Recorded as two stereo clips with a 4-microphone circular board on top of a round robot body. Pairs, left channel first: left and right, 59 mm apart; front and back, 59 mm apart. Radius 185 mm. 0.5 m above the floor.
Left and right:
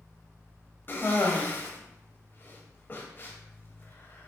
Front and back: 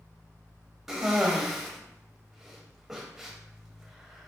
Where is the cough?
100° left, 0.9 m.